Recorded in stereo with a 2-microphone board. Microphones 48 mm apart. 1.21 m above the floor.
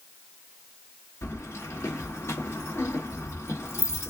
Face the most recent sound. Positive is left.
turn(degrees=75)  # may be behind; listen again after turning